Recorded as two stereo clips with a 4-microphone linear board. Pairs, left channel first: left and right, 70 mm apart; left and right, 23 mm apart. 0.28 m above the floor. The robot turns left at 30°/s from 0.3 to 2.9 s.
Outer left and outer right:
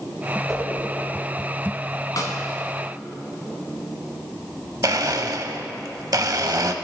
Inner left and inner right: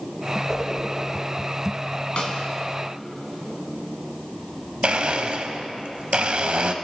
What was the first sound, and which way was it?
A whoosh, centre (ahead or behind).